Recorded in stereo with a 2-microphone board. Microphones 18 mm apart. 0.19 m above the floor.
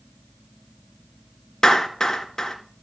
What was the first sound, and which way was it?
A clap, 30° left (ahead or behind).